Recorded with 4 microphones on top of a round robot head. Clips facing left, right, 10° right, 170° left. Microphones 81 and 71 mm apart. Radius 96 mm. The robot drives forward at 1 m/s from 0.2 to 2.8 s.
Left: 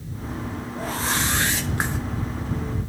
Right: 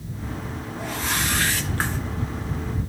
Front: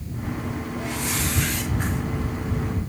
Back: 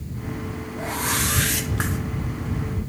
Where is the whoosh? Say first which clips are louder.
Left 1 dB, back 5 dB; 115° left, 0.8 m; by 2.0 s 165° left, 1.6 m.